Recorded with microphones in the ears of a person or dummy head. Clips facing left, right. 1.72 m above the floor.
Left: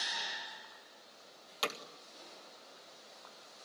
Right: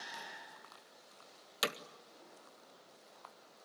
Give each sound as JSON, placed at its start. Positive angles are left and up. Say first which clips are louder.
{"t": 1.6, "sound": "hammering", "louder": "even", "side_deg": -15, "distance_m": 1.6}